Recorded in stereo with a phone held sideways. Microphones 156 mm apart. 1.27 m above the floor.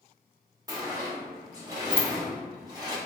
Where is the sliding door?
25° right (ahead or behind), 0.9 m.